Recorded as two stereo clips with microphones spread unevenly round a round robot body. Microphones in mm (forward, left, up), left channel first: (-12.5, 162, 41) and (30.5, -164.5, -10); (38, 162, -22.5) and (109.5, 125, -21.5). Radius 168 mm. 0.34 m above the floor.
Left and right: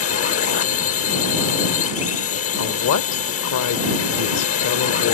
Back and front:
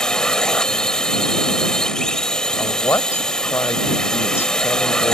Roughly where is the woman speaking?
Behind left.